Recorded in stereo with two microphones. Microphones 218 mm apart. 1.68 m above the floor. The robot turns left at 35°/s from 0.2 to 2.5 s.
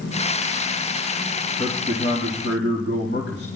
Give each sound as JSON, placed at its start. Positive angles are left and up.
{"t": 1.6, "sound": "a man speaking", "azimuth_deg": 165, "distance_m": 3.0}